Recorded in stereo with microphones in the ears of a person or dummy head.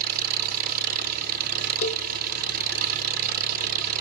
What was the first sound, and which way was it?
An engine running, 45° right (ahead or behind).